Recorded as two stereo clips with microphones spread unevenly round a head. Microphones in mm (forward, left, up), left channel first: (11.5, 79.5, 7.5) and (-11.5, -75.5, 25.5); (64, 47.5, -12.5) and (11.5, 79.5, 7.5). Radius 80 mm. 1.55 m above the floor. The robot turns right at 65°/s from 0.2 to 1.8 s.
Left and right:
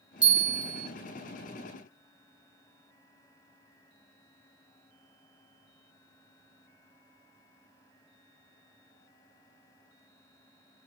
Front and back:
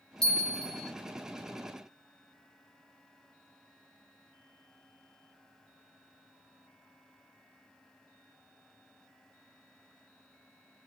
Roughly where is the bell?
Behind right.